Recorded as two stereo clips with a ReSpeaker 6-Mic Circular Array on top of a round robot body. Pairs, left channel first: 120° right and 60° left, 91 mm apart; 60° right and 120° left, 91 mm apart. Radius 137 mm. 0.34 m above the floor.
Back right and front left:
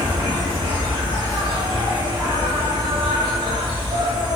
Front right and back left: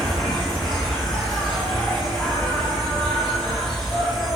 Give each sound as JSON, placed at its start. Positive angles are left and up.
{"t": 0.0, "sound": "an insect", "azimuth_deg": 25, "distance_m": 1.1}